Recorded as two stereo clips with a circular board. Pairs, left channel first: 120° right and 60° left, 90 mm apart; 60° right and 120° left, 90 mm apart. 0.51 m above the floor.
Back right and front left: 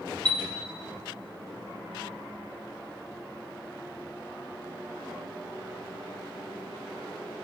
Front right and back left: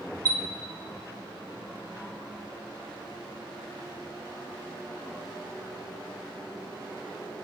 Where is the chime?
165° left, 0.8 m.